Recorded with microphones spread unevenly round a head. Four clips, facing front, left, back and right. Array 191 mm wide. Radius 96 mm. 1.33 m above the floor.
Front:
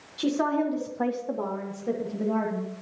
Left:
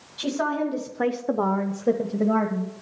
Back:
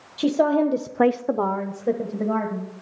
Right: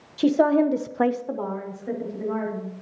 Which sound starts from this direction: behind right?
A woman speaking, at 0.2 s.